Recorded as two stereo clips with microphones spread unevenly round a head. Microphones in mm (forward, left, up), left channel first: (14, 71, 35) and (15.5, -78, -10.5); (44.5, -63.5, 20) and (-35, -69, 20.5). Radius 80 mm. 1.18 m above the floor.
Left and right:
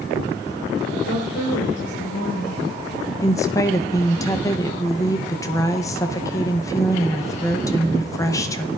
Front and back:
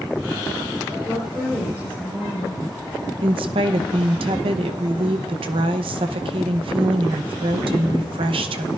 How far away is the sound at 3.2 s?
About 0.7 m.